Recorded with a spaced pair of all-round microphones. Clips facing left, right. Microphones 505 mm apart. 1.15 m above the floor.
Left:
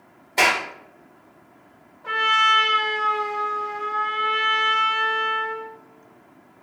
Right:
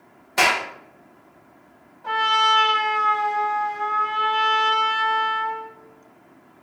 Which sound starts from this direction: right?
A clap, at 0.4 s.